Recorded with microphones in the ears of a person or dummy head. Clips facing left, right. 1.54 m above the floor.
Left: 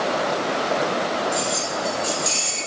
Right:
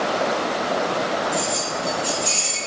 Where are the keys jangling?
20° left (ahead or behind), 1.1 m; by 2.6 s 5° left (ahead or behind), 1.7 m.